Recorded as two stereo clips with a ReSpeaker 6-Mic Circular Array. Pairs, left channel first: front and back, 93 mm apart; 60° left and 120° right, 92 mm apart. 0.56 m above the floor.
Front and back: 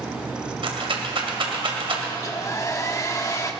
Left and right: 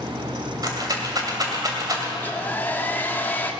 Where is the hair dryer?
10° left, 1.0 m.